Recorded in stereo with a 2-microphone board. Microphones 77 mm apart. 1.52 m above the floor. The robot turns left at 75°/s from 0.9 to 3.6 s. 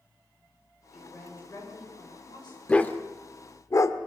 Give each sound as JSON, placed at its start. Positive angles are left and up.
{"t": 0.9, "sound": "a woman speaking", "azimuth_deg": -175, "distance_m": 7.5}
{"t": 2.7, "sound": "a dog barking", "side_deg": 15, "distance_m": 1.4}